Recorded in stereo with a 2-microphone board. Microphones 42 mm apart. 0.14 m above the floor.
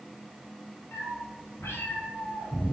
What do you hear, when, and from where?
0.9 s a cat meowing: 70° left (ahead or behind), 1.9 m; by 2.7 s 60° left (ahead or behind), 1.8 m